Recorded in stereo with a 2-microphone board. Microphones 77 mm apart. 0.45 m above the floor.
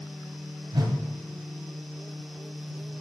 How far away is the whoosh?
About 1.6 m.